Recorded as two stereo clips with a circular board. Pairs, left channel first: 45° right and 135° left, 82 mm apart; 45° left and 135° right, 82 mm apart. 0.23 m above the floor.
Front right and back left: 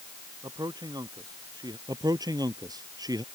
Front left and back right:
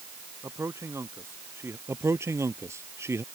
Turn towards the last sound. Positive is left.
turn(degrees=170)